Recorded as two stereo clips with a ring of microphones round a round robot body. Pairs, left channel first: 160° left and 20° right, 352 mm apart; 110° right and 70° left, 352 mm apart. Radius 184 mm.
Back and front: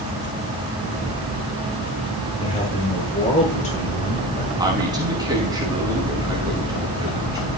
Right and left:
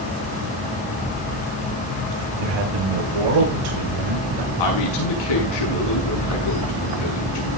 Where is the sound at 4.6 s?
100° right, 6 m.